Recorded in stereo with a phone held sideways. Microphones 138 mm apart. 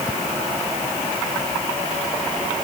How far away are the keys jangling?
I don't hear keys jangling.